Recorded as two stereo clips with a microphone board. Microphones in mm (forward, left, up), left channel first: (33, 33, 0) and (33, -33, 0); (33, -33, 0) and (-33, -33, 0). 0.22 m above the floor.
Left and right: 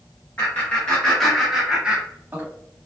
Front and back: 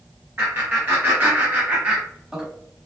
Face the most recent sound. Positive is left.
turn(degrees=-110)